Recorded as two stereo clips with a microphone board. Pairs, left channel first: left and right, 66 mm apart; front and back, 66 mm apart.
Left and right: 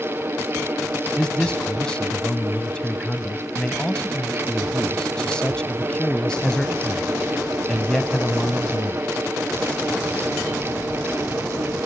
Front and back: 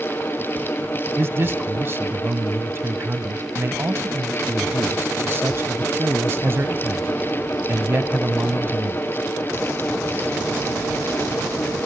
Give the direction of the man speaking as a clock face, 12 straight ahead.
7 o'clock.